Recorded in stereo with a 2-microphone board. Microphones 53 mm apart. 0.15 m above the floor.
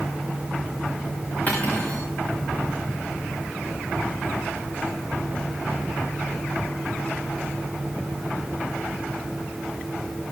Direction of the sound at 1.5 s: 30° left (ahead or behind).